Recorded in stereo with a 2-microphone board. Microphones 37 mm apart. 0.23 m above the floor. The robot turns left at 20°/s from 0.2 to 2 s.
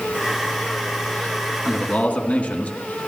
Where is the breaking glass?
I don't hear breaking glass.